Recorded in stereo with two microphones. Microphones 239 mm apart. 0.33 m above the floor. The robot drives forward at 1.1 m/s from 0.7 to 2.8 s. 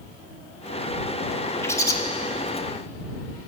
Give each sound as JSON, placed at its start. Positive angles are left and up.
{"t": 1.6, "sound": "a bird", "side_deg": 10, "distance_m": 1.2}